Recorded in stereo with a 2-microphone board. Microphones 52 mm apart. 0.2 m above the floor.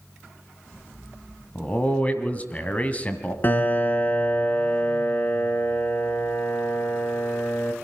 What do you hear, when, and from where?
1.6 s a man speaking: 30° left (ahead or behind), 1.7 m
3.4 s a piano: 35° left (ahead or behind), 1.6 m